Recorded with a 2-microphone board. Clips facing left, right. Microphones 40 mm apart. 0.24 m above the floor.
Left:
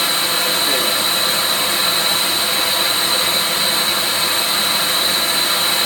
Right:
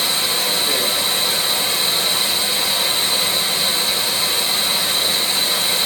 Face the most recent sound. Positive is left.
turn(degrees=65)  # may be behind; listen again after turning